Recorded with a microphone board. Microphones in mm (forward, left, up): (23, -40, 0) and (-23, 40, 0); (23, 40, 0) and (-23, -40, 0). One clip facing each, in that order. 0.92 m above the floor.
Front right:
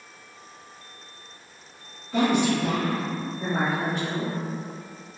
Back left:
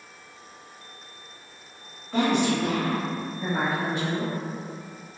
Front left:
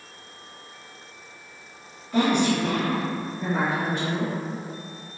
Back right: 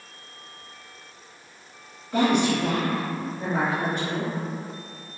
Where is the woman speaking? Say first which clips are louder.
Front right 1 dB, even; 175° left, 1.4 m; by 4.3 s 70° right, 1.3 m.